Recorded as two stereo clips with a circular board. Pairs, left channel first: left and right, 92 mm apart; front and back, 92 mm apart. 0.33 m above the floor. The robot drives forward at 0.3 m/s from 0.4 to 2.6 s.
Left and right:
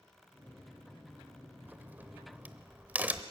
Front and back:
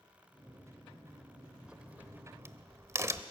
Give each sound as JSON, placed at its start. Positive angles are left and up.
{"t": 1.7, "sound": "a crack", "azimuth_deg": -115, "distance_m": 0.7}